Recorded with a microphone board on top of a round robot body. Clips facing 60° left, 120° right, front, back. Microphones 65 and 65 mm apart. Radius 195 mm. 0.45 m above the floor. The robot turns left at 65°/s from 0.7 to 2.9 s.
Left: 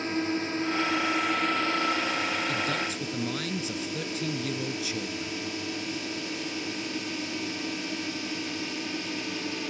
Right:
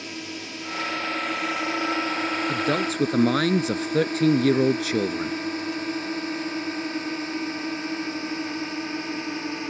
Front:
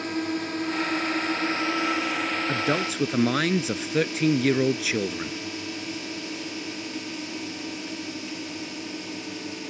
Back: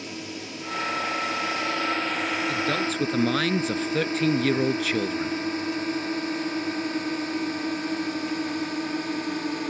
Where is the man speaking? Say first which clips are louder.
Right 5 dB, even; 60° right; by 5.4 s 85° right.